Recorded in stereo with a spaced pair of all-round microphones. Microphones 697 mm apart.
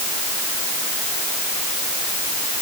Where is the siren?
No siren in this recording.